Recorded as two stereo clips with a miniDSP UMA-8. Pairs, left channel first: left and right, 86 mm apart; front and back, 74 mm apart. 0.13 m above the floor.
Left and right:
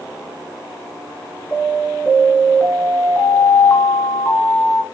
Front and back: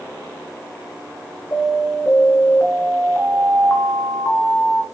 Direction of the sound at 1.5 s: 35° left.